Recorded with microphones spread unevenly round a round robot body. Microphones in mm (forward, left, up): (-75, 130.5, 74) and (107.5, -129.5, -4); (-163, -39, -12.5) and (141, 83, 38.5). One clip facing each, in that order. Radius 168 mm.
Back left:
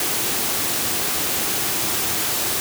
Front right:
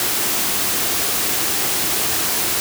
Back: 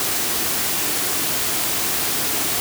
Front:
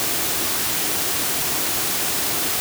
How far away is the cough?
I don't hear a cough.